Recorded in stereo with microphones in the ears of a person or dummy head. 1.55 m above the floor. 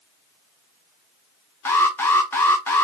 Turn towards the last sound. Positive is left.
turn(degrees=15)  # may be behind; listen again after turning